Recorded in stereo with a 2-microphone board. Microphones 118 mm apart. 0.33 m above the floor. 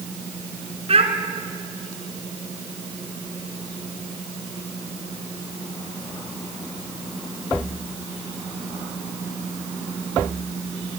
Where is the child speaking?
55° right (ahead or behind), 3 m.